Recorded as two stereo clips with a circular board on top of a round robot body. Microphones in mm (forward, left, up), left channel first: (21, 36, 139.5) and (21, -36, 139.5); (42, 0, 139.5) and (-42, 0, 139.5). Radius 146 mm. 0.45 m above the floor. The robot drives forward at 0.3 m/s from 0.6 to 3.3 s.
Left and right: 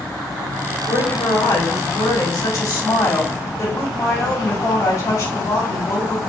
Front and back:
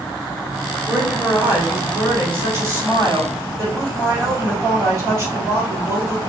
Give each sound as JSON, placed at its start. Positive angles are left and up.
{"t": 0.9, "sound": "a woman speaking", "azimuth_deg": 115, "distance_m": 2.5}